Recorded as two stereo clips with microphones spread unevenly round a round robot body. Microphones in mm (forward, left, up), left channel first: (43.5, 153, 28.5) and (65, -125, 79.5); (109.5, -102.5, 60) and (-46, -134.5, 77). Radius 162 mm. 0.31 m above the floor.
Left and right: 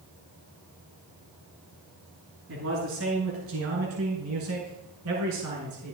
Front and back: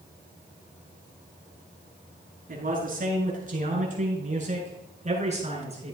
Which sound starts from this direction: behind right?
A man speaking, at 2.5 s.